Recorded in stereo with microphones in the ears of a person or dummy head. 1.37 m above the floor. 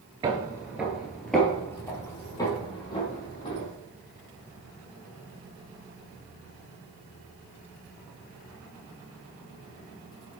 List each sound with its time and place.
0.2 s footsteps: 25° right (ahead or behind), 1.4 m; by 3.7 s 25° left (ahead or behind), 3.5 m